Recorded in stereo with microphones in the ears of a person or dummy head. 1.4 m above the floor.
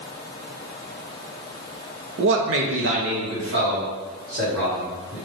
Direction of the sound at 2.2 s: 55° right (ahead or behind).